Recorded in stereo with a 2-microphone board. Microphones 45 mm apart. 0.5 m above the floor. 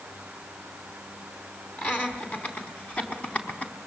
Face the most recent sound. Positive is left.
turn(degrees=35)  # may be behind; listen again after turning